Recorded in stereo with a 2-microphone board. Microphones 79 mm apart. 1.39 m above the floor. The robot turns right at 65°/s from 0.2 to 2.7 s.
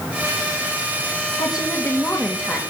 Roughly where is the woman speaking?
Behind left.